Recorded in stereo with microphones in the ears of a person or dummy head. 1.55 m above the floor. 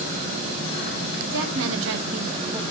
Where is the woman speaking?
70° right (ahead or behind), 1.3 m; by 2.6 s 10° right (ahead or behind), 0.8 m.